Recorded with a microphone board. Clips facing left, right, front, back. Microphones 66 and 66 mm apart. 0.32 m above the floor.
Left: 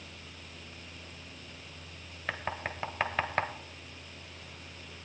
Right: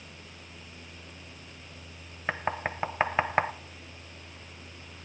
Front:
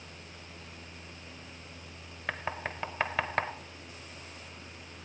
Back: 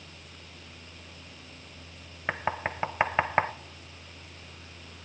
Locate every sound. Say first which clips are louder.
2.3 s knocking: right 5 dB, back 5 dB; 135° right, 0.6 m